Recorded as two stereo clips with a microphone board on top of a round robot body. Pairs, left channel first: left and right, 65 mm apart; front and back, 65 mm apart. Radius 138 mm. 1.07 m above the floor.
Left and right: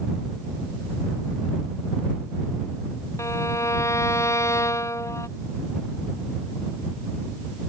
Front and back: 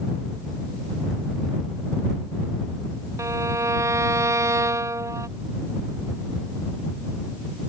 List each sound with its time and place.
3.2 s a violin: 135° left